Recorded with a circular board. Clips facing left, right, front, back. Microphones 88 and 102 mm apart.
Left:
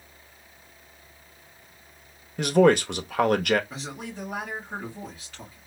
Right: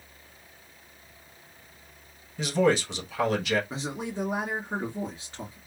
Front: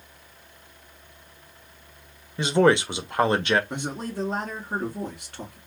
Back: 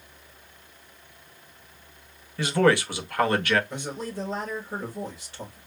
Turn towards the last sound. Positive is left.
turn(degrees=-25)